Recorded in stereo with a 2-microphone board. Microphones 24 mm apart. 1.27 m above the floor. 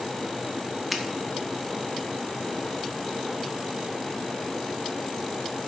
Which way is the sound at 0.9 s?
5° right (ahead or behind).